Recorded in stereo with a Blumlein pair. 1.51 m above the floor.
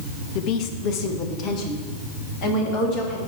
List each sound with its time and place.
0.3 s a woman speaking: 40° left, 1.0 m